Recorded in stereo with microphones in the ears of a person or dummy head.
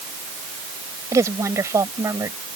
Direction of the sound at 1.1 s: 20° right (ahead or behind).